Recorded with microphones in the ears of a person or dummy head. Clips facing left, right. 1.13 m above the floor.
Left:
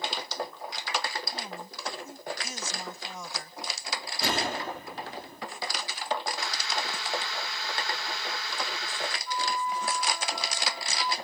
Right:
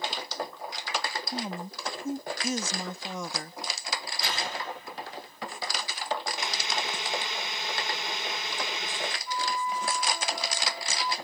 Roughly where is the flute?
Centre.